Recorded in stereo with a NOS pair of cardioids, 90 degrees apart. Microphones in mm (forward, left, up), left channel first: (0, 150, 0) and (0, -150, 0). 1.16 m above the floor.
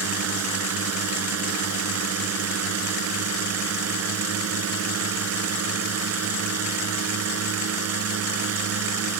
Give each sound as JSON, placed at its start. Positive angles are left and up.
{"t": 0.0, "sound": "a drone", "azimuth_deg": -55}